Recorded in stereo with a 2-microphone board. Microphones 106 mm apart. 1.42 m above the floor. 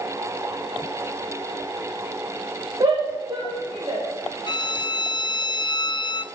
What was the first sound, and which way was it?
A shout, 45° right (ahead or behind).